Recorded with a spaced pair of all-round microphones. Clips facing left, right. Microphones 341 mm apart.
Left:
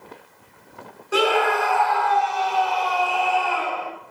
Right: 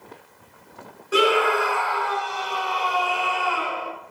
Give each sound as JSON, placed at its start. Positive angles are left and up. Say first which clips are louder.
{"t": 1.1, "sound": "a scream", "louder": "right 1 dB", "side_deg": -5, "distance_m": 4.5}